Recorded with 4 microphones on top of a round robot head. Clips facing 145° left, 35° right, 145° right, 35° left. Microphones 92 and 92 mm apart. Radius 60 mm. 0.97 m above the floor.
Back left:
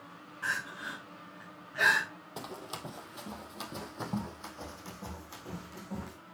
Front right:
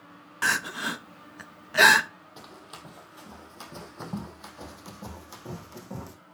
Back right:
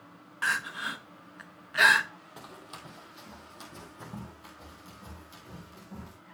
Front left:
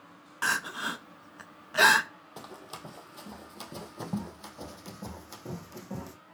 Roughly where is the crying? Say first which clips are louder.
Front right 8 dB, front left 1 dB; ahead right.